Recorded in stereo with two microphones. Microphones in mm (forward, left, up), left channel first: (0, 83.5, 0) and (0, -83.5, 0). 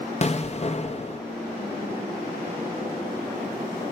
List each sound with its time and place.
0.2 s an explosion: 40° left (ahead or behind), 0.8 m